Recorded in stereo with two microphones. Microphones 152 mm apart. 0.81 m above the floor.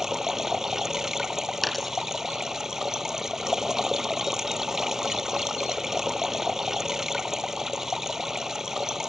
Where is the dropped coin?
Centre (ahead or behind).